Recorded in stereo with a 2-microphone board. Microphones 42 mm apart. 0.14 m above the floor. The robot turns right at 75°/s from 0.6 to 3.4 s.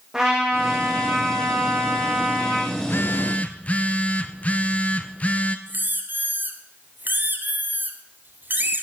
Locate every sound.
0.1 s a trumpet: 165° right, 5 m; by 2.6 s 10° right, 5 m
2.8 s a phone buzzing: 95° left, 0.9 m; by 5.6 s 145° left, 0.9 m
5.7 s a squeak: 50° right (ahead or behind), 1.5 m